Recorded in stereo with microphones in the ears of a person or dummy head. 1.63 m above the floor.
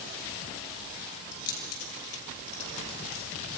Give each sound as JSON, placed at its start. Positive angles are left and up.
{"t": 1.3, "sound": "keys jangling", "side_deg": 45, "distance_m": 6.5}